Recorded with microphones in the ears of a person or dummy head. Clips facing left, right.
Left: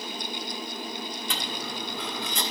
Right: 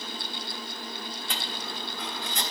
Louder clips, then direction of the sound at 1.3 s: Left 2 dB; 70° left (ahead or behind).